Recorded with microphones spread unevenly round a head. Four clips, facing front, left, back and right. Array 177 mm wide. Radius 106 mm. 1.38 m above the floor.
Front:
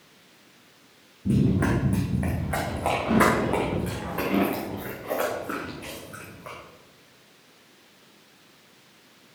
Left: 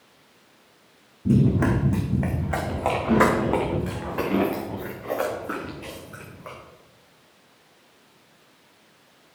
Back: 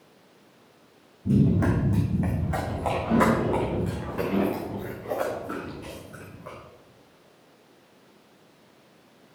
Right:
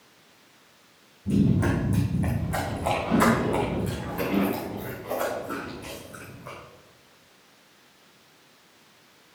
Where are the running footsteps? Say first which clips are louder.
Left 3 dB, back 1 dB; 60° left, 3.5 m; by 6.5 s 50° left, 6 m.